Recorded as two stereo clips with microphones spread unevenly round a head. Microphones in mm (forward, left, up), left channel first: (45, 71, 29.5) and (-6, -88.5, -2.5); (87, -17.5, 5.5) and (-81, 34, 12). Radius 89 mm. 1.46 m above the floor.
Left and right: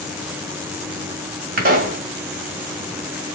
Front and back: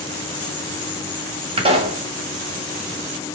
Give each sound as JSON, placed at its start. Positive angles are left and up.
{"t": 1.6, "sound": "a pop", "azimuth_deg": -150, "distance_m": 1.8}